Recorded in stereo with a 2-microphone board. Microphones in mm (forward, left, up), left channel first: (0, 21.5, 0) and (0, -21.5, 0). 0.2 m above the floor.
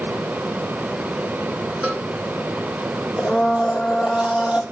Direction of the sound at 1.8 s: 30° right (ahead or behind).